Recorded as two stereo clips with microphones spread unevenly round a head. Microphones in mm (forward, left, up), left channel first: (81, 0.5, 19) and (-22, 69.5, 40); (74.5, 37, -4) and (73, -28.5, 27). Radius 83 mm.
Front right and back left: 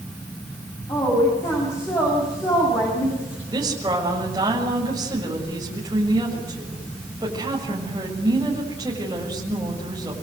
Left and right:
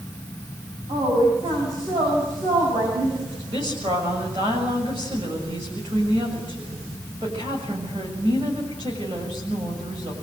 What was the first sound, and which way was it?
A woman speaking, 105° right.